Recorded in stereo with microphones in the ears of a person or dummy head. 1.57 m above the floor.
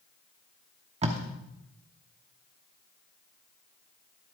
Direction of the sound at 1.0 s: 35° right (ahead or behind).